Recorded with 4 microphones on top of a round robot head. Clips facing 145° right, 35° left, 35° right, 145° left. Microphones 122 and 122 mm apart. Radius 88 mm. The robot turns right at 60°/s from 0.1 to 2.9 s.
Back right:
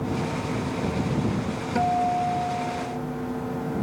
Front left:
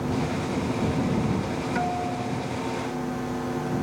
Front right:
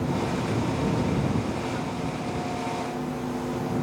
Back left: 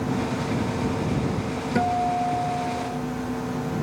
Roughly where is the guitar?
Behind left.